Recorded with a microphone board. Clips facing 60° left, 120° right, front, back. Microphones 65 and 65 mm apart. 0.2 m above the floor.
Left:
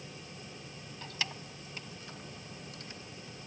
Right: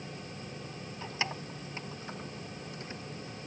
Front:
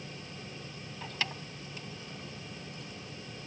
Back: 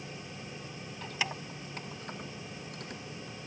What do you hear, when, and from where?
1.0 s keys jangling: 75° right, 0.7 m; by 3.4 s 175° left, 3 m